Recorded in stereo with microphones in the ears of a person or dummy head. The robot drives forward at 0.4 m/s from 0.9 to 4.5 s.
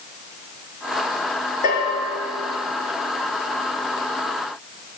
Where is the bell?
45° left (ahead or behind), 5 m; by 2.0 s 40° left (ahead or behind), 5.5 m.